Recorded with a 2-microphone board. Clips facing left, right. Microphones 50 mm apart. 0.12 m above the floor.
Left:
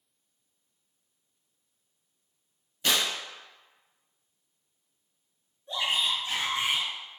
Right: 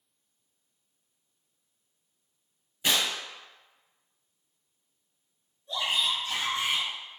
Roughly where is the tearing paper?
Centre.